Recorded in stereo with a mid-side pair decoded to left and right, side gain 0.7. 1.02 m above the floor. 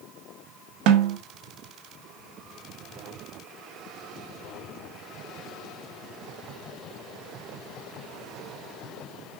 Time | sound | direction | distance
0.9 | a snare drum | 65° right | 1.4 m